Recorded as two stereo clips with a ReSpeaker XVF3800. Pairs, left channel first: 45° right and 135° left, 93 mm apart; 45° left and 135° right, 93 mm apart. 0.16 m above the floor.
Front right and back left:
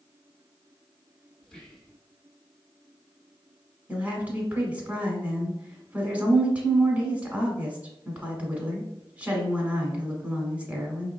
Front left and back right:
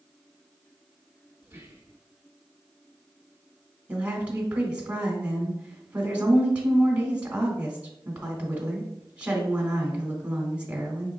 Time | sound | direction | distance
1.4 | whispering | 115° right | 1.2 m
3.9 | a woman speaking | 175° left | 1.1 m